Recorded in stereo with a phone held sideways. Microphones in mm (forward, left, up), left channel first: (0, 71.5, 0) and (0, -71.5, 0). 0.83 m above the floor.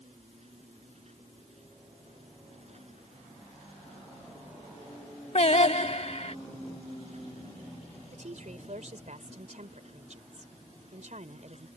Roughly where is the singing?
Left.